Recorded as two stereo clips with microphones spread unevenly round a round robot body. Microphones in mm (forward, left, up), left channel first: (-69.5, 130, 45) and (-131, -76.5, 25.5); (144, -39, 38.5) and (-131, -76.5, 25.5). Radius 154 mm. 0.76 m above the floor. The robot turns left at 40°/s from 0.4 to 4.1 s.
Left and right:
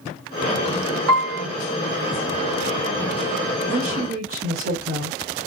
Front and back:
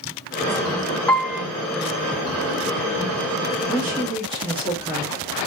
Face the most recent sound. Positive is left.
turn(degrees=-100)